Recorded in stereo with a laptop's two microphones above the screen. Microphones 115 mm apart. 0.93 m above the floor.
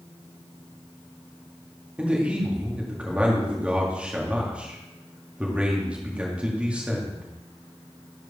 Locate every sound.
2.0 s a man speaking: 10° right (ahead or behind), 1.9 m